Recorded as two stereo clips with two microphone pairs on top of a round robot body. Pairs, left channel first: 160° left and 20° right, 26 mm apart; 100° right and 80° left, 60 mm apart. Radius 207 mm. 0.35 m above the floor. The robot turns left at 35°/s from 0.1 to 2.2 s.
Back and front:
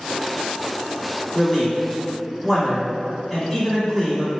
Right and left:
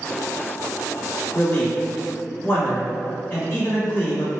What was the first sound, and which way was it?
A man speaking, 90° right.